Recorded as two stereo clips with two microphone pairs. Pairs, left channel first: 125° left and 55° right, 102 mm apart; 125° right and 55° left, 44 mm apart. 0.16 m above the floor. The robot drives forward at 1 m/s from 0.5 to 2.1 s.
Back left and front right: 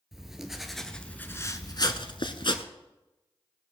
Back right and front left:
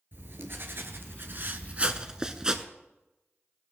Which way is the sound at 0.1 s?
30° left.